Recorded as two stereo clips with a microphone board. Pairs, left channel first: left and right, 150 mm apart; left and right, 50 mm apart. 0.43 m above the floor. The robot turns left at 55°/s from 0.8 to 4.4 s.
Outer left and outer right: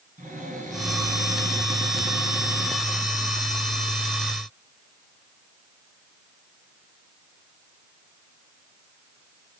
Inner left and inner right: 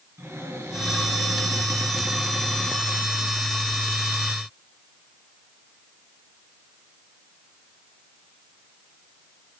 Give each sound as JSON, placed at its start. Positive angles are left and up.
{"t": 0.2, "sound": "a cupboard door", "azimuth_deg": -70, "distance_m": 3.0}